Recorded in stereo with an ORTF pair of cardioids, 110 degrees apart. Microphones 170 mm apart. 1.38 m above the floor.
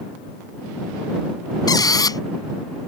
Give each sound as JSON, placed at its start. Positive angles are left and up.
{"t": 1.7, "sound": "a squeak", "azimuth_deg": 20}